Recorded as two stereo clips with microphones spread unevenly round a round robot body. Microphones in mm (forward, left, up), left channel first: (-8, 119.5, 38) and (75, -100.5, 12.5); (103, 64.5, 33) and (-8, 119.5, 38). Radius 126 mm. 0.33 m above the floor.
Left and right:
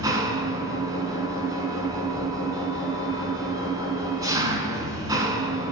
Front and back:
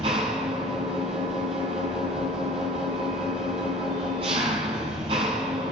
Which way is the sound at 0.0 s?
145° right.